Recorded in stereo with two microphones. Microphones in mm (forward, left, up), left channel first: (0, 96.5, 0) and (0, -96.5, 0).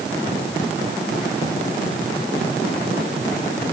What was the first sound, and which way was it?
Only background noise.